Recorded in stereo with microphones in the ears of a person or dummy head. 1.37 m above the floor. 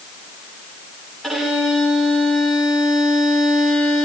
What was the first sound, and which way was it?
A violin, centre (ahead or behind).